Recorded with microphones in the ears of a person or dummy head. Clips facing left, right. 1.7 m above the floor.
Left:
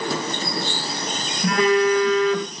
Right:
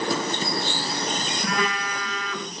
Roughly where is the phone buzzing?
Left.